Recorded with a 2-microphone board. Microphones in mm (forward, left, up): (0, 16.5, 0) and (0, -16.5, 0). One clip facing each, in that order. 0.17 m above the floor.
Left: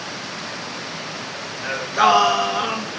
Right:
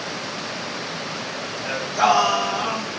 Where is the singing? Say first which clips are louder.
Left 2 dB; 60° left (ahead or behind), 1.1 m.